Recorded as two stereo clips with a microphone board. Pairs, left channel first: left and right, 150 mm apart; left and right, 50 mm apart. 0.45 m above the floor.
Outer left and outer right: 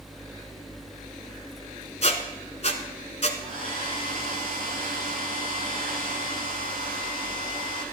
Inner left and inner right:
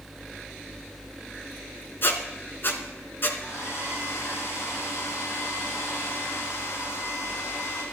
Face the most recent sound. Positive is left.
turn(degrees=75)  # may be behind; listen again after turning